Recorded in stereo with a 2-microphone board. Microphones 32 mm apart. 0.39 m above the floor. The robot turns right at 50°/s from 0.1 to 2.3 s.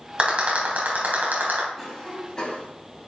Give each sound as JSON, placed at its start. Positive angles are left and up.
{"t": 0.2, "sound": "a rattle", "side_deg": -35, "distance_m": 3.0}
{"t": 1.8, "sound": "a cough", "side_deg": -10, "distance_m": 3.0}